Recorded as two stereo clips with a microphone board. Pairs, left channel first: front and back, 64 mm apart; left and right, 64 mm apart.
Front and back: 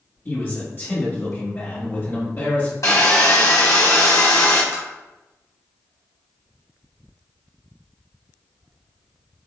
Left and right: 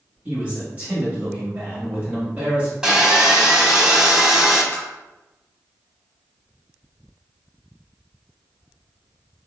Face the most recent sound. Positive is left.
turn(degrees=150)